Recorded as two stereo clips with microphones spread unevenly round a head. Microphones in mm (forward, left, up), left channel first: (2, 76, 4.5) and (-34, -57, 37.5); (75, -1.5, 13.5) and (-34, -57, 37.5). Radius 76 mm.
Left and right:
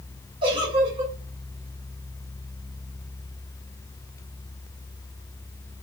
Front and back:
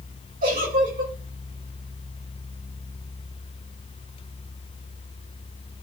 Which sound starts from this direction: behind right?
A giggle, at 0.4 s.